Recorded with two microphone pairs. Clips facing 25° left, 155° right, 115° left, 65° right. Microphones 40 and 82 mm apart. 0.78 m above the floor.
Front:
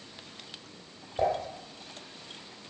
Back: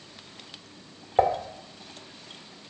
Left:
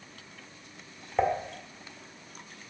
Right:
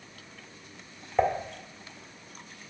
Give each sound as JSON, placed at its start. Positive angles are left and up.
{"t": 1.2, "sound": "dishes clattering", "azimuth_deg": -160, "distance_m": 1.4}